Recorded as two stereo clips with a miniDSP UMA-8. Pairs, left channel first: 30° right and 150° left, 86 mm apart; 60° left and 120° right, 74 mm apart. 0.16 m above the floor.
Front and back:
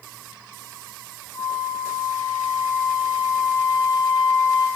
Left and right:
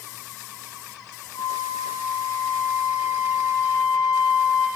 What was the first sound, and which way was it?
A flute, 15° left.